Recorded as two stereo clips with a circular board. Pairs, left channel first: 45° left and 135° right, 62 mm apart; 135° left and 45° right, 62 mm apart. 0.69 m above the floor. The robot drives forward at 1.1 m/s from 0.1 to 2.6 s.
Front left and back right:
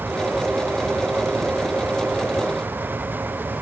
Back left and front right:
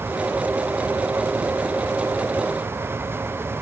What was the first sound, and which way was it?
Only background noise.